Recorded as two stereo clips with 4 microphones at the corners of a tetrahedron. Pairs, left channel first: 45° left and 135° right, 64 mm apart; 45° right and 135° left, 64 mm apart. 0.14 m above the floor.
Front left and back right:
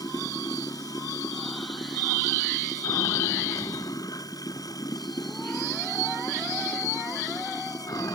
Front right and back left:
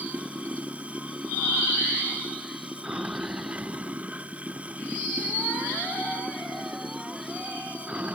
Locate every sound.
0.0 s running water: 65° left